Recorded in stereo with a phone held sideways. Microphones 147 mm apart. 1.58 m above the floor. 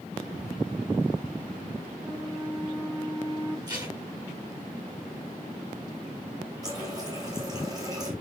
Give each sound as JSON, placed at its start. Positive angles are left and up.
{"t": 2.0, "sound": "a flute", "side_deg": -35, "distance_m": 2.5}
{"t": 3.7, "sound": "tape being pulled", "side_deg": -25, "distance_m": 9.5}
{"t": 6.6, "sound": "a running tap", "side_deg": -25, "distance_m": 6.5}